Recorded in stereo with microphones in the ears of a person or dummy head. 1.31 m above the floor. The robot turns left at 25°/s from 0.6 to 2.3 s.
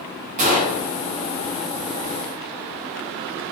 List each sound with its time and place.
0.4 s a gunshot: 40° right (ahead or behind), 0.7 m; by 0.8 s 50° right (ahead or behind), 0.7 m